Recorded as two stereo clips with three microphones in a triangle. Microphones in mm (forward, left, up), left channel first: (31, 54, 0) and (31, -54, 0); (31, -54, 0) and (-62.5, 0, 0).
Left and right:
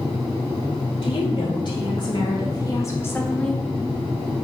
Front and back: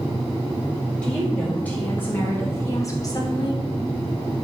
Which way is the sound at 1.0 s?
50° left.